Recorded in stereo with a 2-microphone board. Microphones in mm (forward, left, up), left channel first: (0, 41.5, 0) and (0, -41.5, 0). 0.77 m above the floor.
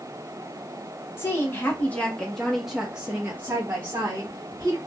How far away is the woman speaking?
About 1.3 m.